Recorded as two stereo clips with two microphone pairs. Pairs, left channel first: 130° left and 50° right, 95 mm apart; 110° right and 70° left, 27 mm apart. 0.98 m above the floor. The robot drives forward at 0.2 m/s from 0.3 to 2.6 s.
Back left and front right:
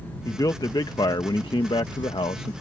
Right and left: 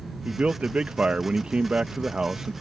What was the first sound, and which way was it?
A man speaking, 90° left.